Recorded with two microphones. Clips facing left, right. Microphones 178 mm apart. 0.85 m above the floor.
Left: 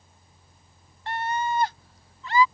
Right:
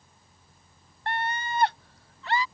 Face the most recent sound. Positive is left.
turn(degrees=-70)  # may be behind; listen again after turning